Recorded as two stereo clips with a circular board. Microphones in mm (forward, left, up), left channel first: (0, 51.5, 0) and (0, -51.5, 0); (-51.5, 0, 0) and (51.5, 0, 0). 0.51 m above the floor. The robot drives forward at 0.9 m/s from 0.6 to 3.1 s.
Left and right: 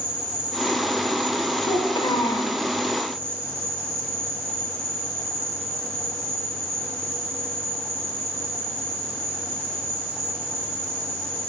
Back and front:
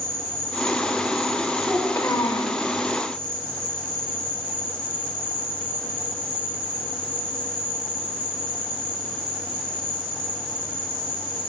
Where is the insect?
115° right, 3.5 m; by 11.5 s 145° right, 4.5 m.